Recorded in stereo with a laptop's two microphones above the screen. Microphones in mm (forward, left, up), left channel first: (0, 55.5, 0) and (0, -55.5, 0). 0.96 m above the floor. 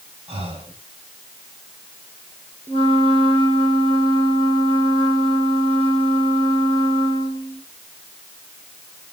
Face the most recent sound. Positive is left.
turn(degrees=-60)  # may be behind; listen again after turning